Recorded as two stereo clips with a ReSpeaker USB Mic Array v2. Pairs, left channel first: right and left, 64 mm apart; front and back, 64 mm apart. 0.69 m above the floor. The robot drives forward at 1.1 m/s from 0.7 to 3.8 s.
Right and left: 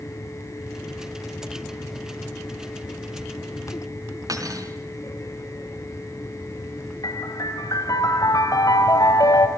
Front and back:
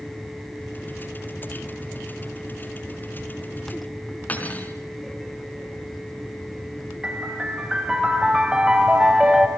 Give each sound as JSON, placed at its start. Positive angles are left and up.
{"t": 4.3, "sound": "cutlery clinking", "azimuth_deg": 65, "distance_m": 4.5}
{"t": 7.0, "sound": "a piano", "azimuth_deg": -105, "distance_m": 3.5}